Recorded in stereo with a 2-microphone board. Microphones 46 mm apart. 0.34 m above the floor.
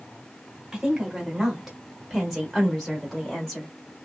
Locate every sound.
0.7 s a woman speaking: 10° right (ahead or behind), 1.3 m; by 3.7 s 5° left (ahead or behind), 1.5 m